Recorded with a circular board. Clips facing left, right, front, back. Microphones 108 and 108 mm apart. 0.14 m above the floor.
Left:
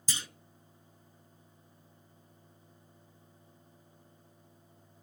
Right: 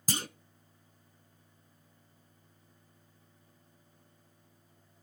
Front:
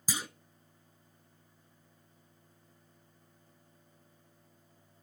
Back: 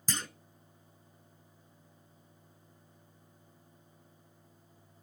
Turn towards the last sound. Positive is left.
turn(degrees=-80)